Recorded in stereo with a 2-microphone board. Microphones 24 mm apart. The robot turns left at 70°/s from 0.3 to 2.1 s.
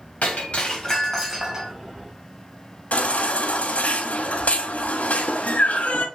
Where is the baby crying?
65° left (ahead or behind), 1.1 m.